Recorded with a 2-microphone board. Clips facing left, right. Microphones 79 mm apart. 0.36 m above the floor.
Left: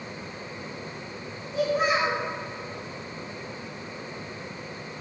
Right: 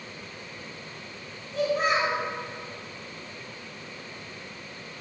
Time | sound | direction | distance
1.5 | a child speaking | 5° left (ahead or behind) | 1.3 m